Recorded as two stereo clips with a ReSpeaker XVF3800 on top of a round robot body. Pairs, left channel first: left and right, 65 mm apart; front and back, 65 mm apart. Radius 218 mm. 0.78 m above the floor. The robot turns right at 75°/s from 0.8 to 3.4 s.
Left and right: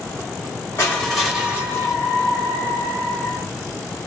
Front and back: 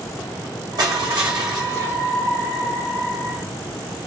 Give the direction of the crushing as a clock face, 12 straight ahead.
7 o'clock.